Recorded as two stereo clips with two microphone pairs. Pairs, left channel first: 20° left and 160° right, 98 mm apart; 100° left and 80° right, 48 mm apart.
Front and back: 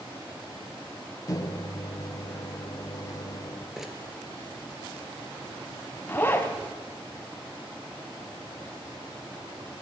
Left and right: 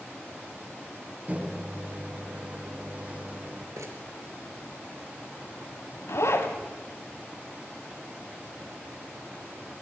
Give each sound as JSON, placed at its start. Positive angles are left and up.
{"t": 1.3, "sound": "a microwave", "azimuth_deg": -25, "distance_m": 1.2}
{"t": 3.8, "sound": "crumpling", "azimuth_deg": -75, "distance_m": 3.0}
{"t": 6.1, "sound": "a zipper", "azimuth_deg": 90, "distance_m": 2.5}